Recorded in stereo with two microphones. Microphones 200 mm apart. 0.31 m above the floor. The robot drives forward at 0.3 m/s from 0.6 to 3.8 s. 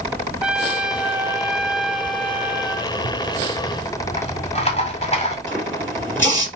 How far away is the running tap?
About 3.5 m.